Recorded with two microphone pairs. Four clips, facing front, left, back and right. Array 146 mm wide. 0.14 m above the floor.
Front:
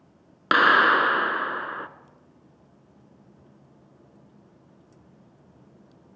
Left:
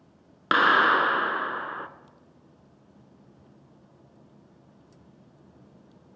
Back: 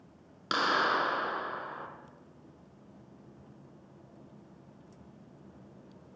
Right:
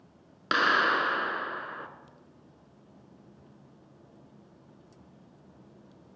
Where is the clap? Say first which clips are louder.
Left 5 dB, front 10 dB; 30° left, 1.4 m.